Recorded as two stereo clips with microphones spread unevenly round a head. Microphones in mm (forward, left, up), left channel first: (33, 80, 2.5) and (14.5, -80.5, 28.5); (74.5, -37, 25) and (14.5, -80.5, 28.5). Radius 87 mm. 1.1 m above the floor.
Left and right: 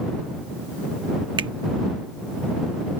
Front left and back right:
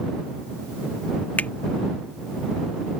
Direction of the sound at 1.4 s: 35° right.